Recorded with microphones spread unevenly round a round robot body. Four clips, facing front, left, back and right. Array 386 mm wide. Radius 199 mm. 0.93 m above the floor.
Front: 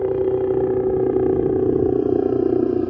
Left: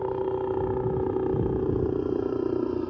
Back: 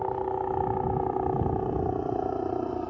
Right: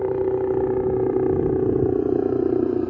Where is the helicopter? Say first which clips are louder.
Right 6 dB, front 10 dB; 25° right.